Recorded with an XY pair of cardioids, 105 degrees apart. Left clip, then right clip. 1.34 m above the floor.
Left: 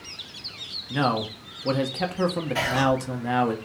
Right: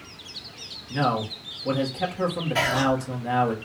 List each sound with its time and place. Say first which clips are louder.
0.9 s a man speaking: even; 30° left, 0.9 m
2.5 s whispering: right 1 dB; 15° right, 0.6 m